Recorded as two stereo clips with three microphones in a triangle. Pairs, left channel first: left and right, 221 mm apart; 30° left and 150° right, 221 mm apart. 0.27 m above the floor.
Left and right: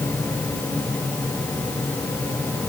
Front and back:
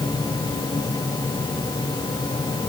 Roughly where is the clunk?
I don't hear a clunk.